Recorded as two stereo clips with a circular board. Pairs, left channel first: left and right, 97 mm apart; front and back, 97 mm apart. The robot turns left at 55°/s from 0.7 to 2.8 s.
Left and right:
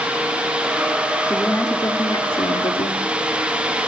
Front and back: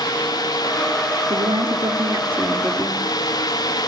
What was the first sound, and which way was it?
A woman speaking, 165° left.